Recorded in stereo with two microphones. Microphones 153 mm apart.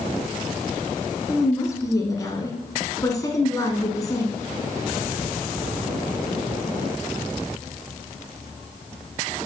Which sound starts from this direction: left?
A woman speaking, at 1.3 s.